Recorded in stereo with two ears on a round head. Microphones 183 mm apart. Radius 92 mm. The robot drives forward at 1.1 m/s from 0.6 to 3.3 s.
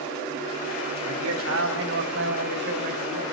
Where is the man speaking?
80° right, 4 m; by 3.2 s 50° right (ahead or behind), 5 m.